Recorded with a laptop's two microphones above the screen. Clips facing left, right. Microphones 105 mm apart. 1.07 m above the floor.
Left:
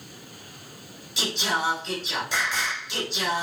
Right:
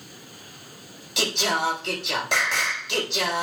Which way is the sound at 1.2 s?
75° right (ahead or behind).